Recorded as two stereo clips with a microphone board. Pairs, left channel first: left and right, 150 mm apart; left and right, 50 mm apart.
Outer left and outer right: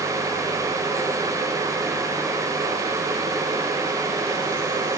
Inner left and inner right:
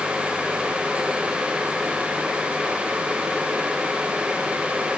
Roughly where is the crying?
No crying in this recording.